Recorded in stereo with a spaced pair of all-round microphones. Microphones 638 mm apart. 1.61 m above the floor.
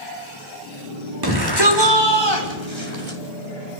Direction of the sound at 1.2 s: 35° right (ahead or behind).